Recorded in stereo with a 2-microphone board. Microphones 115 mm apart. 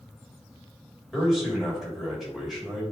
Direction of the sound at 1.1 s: Centre (ahead or behind).